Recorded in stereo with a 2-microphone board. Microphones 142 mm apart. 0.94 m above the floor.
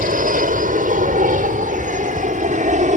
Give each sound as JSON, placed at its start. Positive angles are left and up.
{"t": 0.0, "sound": "an aircraft", "side_deg": -70}